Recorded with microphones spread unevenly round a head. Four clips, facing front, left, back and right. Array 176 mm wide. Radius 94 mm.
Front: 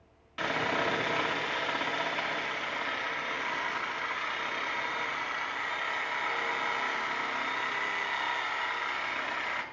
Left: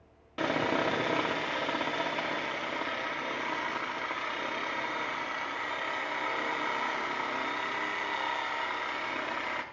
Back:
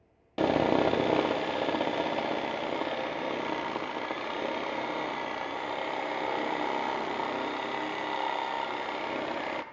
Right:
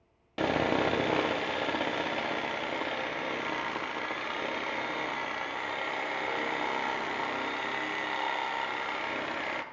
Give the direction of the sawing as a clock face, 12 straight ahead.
6 o'clock.